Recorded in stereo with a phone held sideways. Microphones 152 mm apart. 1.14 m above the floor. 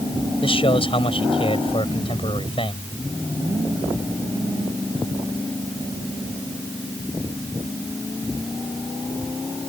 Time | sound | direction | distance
0.4 | a man speaking | 40° left (ahead or behind) | ?